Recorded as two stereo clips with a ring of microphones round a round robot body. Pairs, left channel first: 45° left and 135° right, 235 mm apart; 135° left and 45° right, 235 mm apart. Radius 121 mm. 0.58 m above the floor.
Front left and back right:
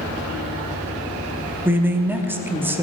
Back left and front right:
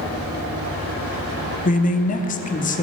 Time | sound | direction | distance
1.6 | a man speaking | 150° left | 0.9 m